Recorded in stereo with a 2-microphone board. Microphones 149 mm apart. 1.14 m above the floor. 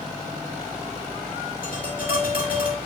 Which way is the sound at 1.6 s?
65° left (ahead or behind).